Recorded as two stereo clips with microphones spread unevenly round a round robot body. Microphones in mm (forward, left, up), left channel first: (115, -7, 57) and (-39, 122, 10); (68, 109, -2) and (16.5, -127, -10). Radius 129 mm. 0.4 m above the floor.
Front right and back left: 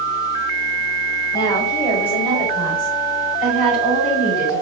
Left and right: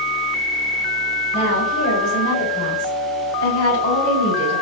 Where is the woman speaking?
40° left, 1.9 m; by 4.6 s 60° left, 3.5 m.